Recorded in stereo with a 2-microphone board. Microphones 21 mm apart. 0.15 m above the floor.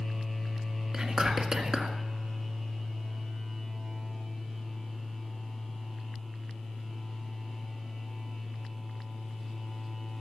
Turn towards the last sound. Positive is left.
turn(degrees=-40)  # may be behind; listen again after turning